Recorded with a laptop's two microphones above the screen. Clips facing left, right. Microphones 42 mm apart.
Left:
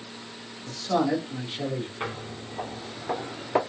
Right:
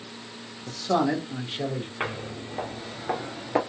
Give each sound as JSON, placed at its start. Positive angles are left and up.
{"t": 0.7, "sound": "a man speaking", "side_deg": -30, "distance_m": 0.9}
{"t": 2.0, "sound": "footsteps", "side_deg": -50, "distance_m": 1.5}